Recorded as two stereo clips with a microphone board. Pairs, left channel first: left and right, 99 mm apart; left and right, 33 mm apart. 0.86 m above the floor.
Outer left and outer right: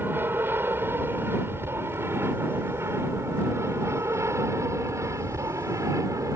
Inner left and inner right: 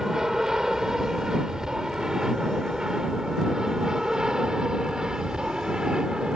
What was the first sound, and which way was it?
An aircraft, 20° right (ahead or behind).